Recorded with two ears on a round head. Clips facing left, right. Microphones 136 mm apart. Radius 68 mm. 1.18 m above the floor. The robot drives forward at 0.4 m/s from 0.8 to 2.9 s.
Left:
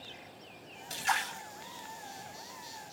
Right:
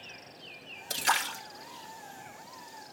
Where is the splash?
65° right (ahead or behind), 2.5 m; by 1.4 s 70° right (ahead or behind), 2.5 m.